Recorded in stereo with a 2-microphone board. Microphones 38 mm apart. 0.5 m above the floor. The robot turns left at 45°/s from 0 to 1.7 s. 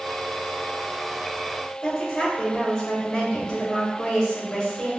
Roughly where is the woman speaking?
Left.